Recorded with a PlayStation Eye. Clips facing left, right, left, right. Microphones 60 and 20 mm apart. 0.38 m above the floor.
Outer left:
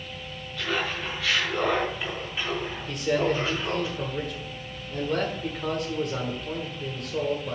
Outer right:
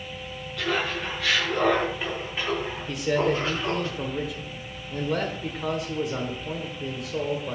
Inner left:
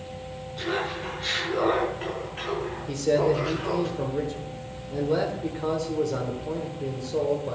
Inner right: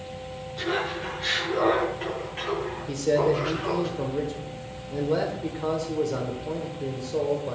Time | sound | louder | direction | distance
0.6 | laughter | outer right 2 dB, inner right 1 dB | 10° right (ahead or behind) | 3.5 m
2.9 | a man speaking | outer right 1 dB, even | 5° right (ahead or behind) | 1.3 m